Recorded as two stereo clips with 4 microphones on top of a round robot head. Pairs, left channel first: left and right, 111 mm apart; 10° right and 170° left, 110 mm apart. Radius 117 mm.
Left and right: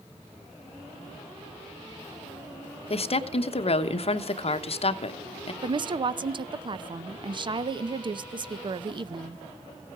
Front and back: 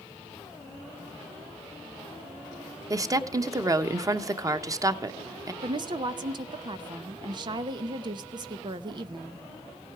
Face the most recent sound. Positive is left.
turn(degrees=-135)